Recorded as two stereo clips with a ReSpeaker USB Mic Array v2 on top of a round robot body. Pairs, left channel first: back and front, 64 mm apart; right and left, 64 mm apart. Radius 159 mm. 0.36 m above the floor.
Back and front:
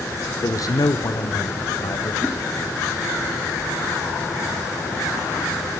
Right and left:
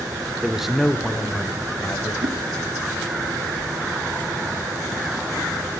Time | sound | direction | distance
0.4 | a man speaking | 165° left | 1.3 m
2.2 | a whoosh | 100° left | 4.5 m